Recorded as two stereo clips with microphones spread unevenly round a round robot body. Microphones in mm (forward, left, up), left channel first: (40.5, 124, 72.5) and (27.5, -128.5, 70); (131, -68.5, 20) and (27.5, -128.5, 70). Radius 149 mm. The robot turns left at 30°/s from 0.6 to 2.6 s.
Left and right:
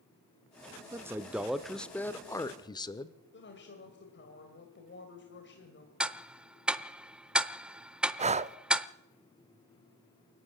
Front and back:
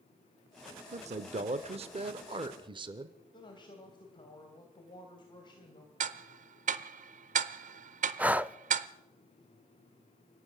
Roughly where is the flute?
I don't hear a flute.